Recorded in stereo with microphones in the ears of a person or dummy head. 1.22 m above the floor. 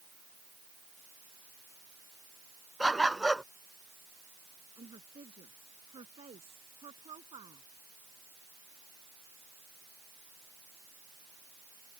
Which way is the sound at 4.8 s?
35° right (ahead or behind).